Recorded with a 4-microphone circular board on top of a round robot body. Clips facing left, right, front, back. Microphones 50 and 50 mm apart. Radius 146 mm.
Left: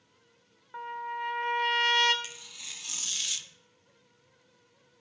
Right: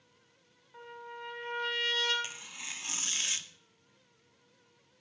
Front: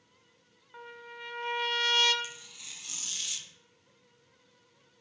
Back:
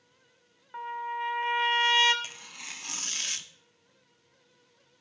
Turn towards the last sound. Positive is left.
turn(degrees=-145)